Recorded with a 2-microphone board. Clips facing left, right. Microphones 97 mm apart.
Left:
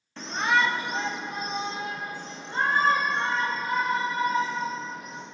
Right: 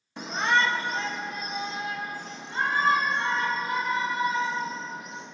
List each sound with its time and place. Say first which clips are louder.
0.2 s a shout: even; 15° right (ahead or behind), 0.7 m; by 5.2 s 45° left (ahead or behind), 4.5 m